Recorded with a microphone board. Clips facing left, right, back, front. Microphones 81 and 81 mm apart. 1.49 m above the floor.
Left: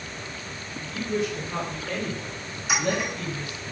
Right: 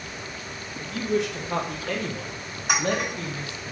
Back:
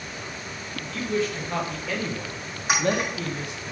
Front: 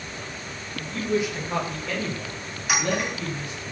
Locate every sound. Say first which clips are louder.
0.8 s a woman speaking: right 2 dB, front 1 dB; 65° right, 2 m; by 3.7 s 155° right, 2 m
2.7 s a clink: right 1 dB, back 2 dB; 125° right, 4 m